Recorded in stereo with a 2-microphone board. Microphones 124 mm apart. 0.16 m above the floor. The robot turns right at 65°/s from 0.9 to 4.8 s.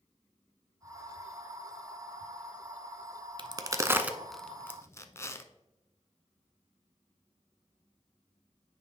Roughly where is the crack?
Right.